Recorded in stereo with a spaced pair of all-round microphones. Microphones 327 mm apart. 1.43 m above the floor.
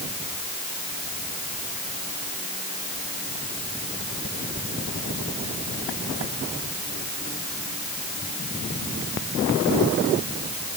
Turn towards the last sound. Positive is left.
No sound to turn to.